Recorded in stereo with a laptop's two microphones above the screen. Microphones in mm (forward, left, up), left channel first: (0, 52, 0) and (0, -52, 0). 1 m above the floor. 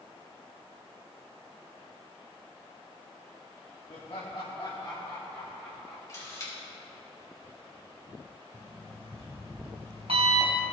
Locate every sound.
3.9 s laughter: 65° left (ahead or behind), 1.8 m; by 6.0 s 5° left (ahead or behind), 2 m
6.1 s a camera shutter: 30° left (ahead or behind), 4 m
8.5 s an alarm clock: 70° right (ahead or behind), 3.5 m